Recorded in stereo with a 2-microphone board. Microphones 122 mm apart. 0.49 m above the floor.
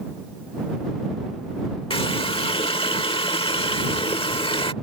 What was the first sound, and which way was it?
A running tap, 50° left (ahead or behind).